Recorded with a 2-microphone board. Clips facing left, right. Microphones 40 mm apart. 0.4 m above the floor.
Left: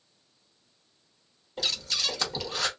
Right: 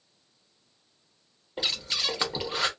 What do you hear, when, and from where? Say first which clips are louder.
1.6 s breathing: right 1 dB; 20° right (ahead or behind), 0.9 m